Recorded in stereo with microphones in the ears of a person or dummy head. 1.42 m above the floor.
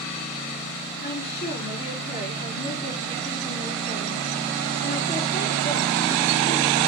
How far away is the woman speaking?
About 4 m.